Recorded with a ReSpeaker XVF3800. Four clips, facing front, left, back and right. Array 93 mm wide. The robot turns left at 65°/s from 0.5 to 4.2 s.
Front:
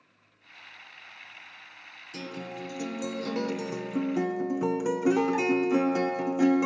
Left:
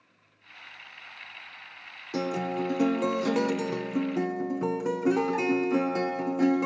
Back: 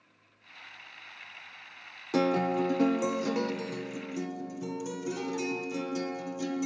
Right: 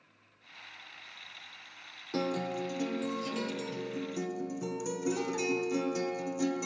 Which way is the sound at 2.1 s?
175° left.